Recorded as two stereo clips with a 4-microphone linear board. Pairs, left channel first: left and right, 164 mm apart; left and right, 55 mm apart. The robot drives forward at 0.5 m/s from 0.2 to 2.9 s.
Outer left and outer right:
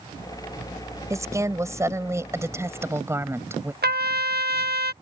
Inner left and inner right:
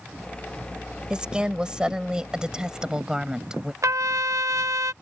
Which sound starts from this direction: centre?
A woman speaking, at 1.1 s.